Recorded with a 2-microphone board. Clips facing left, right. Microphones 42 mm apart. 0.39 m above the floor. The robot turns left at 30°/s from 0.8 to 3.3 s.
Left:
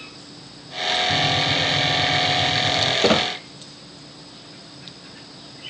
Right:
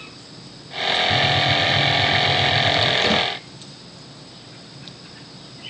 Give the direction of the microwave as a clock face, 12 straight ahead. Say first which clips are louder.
Right 3 dB; 11 o'clock.